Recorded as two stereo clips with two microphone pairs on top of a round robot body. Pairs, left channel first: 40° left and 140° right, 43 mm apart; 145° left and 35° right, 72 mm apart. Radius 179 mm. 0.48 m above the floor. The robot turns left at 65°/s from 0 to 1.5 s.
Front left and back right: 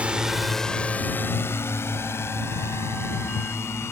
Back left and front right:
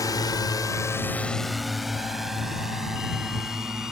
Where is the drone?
165° left; by 3.9 s 45° left.